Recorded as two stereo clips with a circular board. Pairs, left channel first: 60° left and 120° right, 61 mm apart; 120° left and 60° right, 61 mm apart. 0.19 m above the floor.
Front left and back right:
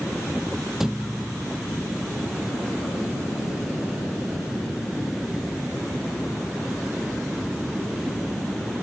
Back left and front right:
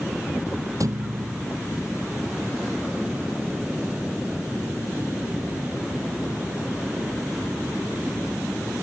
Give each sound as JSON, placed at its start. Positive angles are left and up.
{"t": 0.8, "sound": "a thud", "azimuth_deg": -35, "distance_m": 1.0}